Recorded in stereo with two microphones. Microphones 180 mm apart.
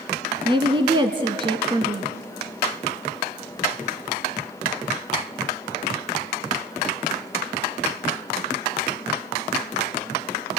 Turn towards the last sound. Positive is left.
turn(degrees=-30)  # may be behind; listen again after turning